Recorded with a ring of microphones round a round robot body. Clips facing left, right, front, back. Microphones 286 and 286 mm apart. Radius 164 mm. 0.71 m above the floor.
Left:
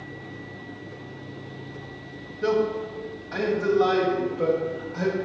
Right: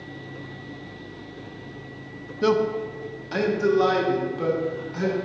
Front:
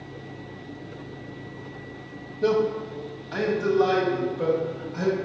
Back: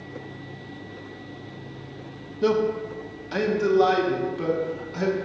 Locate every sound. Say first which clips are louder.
2.4 s a man speaking: right 2 dB, even; 115° right, 0.8 m; by 5.2 s 145° right, 2 m